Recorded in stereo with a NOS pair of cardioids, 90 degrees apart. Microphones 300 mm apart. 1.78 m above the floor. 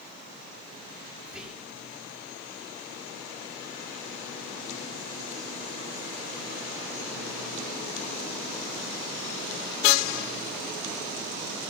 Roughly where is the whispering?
Ahead.